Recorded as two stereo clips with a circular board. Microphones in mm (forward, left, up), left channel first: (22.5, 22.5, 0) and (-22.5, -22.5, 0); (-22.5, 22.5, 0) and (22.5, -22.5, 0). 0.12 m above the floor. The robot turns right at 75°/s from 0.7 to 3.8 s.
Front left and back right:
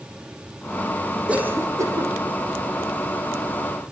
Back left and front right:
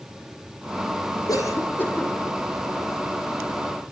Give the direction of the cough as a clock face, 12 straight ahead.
7 o'clock.